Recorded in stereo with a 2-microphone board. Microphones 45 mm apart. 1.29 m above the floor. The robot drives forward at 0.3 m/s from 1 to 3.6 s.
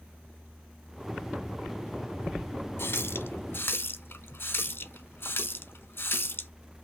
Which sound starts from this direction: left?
A running tap, at 2.8 s.